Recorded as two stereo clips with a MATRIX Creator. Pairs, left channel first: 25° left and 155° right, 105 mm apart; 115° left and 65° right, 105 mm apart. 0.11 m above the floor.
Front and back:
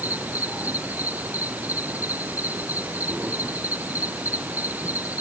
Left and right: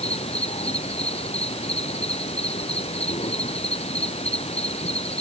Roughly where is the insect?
Behind left.